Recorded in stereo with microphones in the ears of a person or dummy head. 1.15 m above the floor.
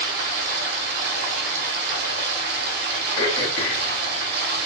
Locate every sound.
0.0 s running water: 60° right (ahead or behind), 1.1 m
3.2 s throat clearing: 25° left (ahead or behind), 2 m